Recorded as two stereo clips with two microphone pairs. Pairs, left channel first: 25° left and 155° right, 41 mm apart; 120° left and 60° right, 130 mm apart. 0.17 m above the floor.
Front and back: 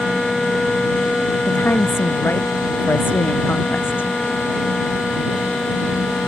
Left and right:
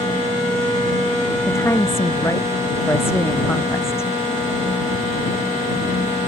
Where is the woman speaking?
50° left.